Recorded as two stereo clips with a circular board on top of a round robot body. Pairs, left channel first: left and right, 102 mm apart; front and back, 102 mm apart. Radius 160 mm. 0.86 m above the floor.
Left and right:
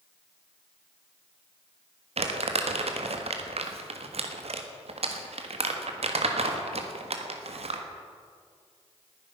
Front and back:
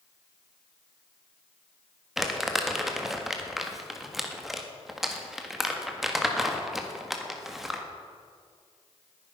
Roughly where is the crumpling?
Right.